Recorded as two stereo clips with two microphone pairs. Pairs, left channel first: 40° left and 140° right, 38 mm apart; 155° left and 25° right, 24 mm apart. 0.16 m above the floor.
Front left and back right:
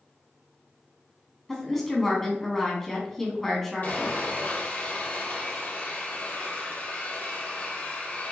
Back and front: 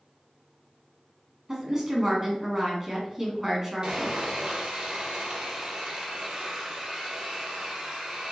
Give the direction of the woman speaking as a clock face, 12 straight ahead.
1 o'clock.